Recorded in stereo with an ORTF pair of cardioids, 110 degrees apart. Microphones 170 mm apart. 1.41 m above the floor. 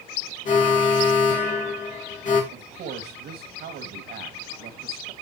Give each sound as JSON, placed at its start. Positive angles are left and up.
{"t": 0.5, "sound": "an alarm", "azimuth_deg": 50, "distance_m": 4.0}
{"t": 2.5, "sound": "a man speaking", "azimuth_deg": -70, "distance_m": 2.5}